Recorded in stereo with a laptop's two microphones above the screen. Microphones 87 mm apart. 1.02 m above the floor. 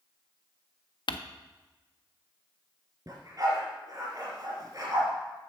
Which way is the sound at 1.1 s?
60° left (ahead or behind).